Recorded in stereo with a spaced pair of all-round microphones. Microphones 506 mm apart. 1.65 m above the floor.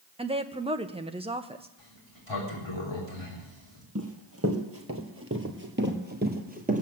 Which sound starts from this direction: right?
Running footsteps, at 4.0 s.